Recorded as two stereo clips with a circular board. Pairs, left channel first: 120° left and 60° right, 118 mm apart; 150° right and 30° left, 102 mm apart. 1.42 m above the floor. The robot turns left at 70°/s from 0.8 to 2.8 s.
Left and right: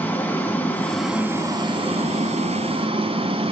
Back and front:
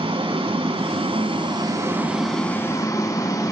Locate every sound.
0.0 s running water: 50° left, 3 m; by 3.5 s 90° right, 3 m